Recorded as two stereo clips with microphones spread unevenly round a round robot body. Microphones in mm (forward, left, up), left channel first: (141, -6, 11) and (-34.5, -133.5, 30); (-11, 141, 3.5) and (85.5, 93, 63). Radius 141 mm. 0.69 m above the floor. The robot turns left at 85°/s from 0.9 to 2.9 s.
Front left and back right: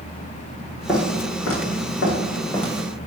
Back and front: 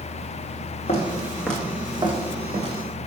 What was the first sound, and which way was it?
Footsteps, 125° left.